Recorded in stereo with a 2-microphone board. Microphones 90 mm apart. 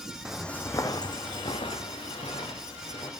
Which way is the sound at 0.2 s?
5° right (ahead or behind).